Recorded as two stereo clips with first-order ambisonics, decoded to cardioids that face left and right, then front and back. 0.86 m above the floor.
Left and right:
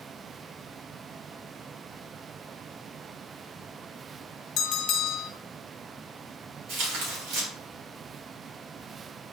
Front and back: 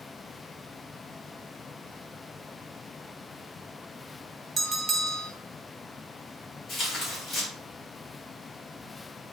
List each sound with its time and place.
4.6 s a bell: 115° left, 0.8 m
6.7 s tearing paper: 70° right, 2.5 m